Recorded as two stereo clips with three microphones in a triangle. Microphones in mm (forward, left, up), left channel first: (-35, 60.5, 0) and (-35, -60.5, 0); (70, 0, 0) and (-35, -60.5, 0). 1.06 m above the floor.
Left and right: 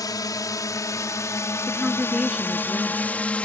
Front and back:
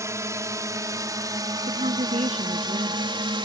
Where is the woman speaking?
Straight behind.